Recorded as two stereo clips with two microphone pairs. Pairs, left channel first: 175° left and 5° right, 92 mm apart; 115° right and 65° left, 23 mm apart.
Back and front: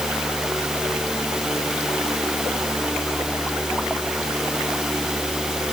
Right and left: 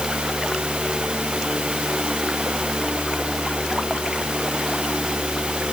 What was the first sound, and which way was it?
Only background noise.